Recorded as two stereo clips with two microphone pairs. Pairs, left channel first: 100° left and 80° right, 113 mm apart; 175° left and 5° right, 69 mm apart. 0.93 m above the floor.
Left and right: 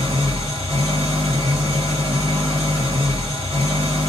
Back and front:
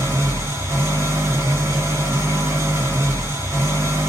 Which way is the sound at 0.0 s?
50° right.